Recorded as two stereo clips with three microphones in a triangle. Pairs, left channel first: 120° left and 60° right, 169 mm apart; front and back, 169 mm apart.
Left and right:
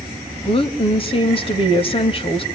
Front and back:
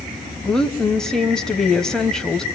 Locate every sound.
0.5 s a woman speaking: 85° left, 1.5 m